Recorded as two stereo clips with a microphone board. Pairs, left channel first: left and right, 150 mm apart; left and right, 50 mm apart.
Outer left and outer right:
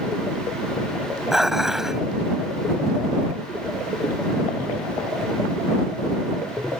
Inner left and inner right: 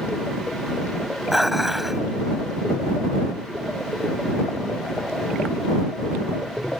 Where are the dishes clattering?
5° right (ahead or behind).